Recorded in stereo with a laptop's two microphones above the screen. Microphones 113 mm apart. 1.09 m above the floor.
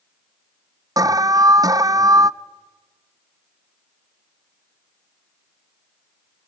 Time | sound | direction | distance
1.0 | an alarm | 30° right (ahead or behind) | 0.5 m